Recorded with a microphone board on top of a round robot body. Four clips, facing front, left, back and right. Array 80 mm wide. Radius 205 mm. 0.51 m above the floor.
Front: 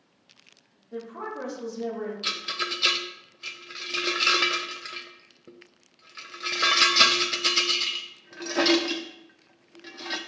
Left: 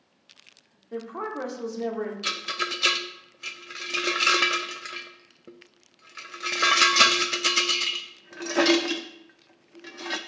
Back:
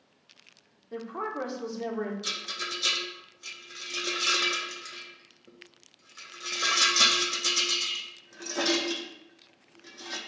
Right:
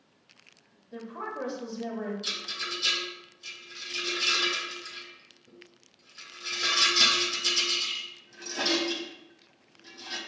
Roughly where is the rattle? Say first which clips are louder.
Left 8 dB, front 5 dB; ahead left.